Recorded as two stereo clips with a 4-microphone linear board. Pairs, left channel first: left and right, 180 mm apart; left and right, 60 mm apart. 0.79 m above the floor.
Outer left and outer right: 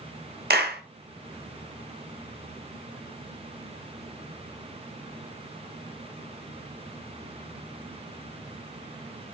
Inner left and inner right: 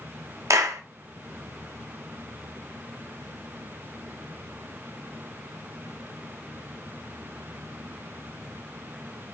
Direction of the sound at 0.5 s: 70° right (ahead or behind).